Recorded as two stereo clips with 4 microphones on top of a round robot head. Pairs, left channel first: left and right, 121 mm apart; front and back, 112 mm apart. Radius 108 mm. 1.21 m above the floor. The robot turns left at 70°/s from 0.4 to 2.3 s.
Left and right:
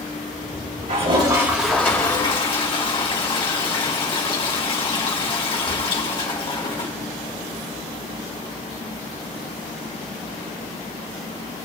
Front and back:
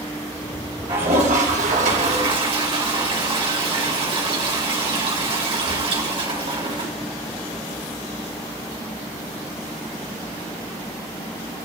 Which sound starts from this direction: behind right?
A toilet flushing, at 0.9 s.